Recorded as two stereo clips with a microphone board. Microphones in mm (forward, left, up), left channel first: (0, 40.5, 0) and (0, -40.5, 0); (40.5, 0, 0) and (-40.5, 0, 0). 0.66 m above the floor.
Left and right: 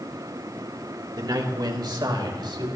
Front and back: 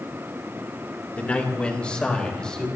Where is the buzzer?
No buzzer in this recording.